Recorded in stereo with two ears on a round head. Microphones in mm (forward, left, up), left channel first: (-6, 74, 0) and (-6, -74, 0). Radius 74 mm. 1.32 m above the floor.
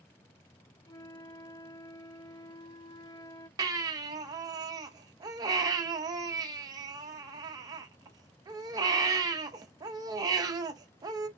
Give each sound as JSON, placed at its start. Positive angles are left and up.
{"t": 0.8, "sound": "a flute", "side_deg": 25, "distance_m": 0.5}
{"t": 3.6, "sound": "a baby crying", "side_deg": -25, "distance_m": 0.6}